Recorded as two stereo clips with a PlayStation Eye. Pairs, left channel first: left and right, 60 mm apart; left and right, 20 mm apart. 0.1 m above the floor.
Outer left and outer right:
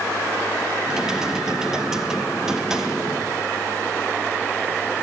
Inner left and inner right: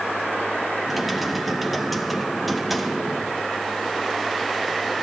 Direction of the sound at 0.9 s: 10° right (ahead or behind).